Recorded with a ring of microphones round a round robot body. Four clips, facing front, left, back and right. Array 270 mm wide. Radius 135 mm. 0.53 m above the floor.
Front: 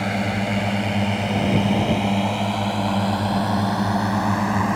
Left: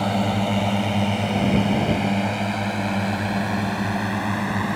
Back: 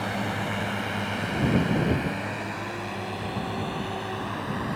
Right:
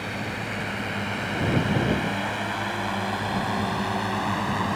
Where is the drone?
60° left; by 4.8 s 15° left.